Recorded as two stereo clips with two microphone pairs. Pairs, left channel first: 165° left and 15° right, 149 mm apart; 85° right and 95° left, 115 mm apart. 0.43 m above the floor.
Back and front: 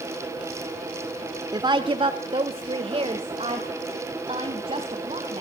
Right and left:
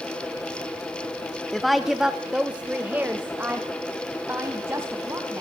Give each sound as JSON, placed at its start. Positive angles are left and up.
{"t": 1.5, "sound": "a woman speaking", "azimuth_deg": -5, "distance_m": 0.8}